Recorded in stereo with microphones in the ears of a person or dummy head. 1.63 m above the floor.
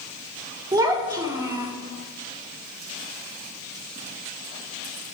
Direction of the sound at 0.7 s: 20° right (ahead or behind).